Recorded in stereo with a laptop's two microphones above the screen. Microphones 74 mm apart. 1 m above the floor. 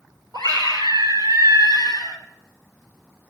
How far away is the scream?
About 5 m.